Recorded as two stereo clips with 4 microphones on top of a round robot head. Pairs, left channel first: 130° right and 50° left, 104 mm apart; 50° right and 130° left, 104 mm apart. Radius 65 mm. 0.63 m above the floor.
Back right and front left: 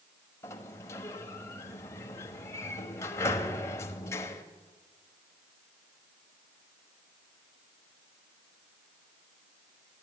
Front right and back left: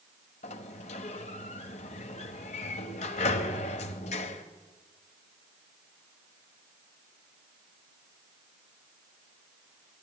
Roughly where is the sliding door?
Ahead right.